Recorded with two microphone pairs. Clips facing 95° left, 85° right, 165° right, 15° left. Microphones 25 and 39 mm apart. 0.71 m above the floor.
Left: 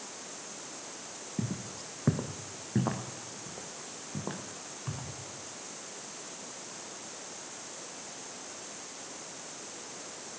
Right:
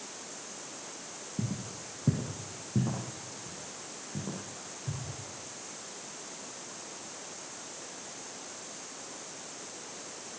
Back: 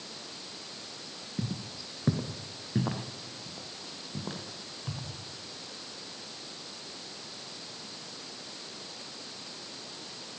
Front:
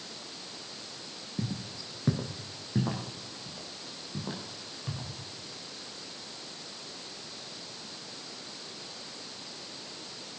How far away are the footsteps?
About 1.3 m.